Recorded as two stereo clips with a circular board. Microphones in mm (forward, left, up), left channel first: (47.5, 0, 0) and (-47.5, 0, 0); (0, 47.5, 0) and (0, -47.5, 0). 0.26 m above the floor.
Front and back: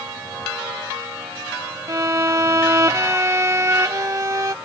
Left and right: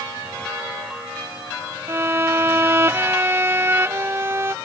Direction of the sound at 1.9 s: 140° right.